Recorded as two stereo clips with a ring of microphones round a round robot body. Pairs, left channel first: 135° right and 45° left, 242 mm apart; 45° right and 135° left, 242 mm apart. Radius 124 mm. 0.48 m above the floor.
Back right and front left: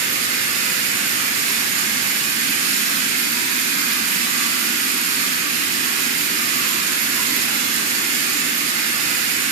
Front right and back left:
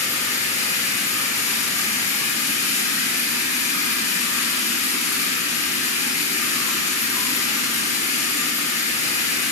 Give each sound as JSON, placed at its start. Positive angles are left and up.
{"t": 0.0, "sound": "running water", "azimuth_deg": 20, "distance_m": 3.5}